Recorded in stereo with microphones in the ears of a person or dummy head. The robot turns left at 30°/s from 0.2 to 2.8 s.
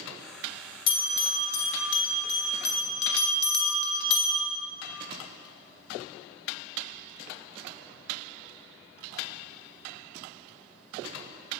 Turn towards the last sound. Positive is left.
turn(degrees=60)  # may be behind; listen again after turning